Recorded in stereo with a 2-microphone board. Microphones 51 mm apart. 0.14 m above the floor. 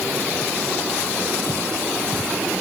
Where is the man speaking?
No man speaking in this recording.